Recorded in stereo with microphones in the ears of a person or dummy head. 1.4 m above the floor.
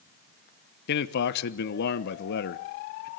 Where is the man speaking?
65° left (ahead or behind), 1.0 m.